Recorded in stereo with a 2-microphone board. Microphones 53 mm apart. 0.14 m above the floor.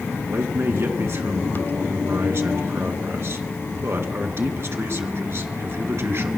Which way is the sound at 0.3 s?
50° right (ahead or behind).